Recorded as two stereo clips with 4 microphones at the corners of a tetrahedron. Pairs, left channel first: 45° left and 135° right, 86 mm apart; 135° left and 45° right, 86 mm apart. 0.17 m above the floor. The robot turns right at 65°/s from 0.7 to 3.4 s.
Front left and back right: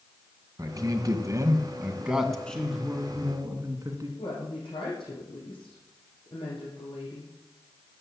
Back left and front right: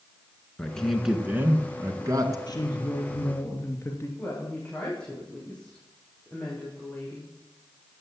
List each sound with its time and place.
0.6 s a man speaking: 150° right, 1.8 m; by 2.4 s 40° right, 1.8 m
2.5 s a woman speaking: 120° left, 2.5 m; by 4.1 s 175° right, 2.5 m
4.2 s a woman speaking: 55° left, 7.5 m